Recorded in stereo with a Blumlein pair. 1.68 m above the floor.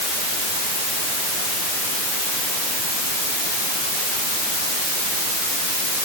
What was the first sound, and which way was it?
Only background noise.